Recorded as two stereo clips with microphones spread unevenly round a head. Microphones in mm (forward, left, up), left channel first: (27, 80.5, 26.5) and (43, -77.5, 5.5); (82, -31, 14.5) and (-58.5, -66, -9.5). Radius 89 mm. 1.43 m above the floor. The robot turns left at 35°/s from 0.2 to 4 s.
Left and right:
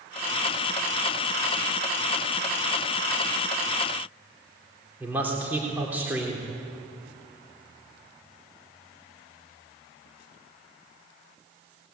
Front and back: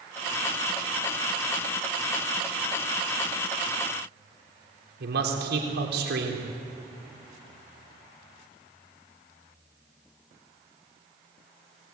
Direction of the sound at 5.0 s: 165° right.